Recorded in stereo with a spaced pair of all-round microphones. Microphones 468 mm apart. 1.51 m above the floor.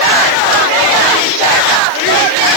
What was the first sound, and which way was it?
Only background noise.